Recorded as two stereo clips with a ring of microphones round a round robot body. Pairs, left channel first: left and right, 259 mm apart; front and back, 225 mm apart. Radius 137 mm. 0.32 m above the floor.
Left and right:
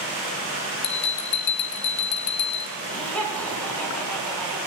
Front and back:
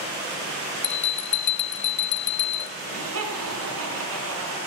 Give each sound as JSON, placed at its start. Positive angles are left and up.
{"t": 0.8, "sound": "a bell", "azimuth_deg": 40, "distance_m": 0.8}
{"t": 2.8, "sound": "laughter", "azimuth_deg": 175, "distance_m": 4.5}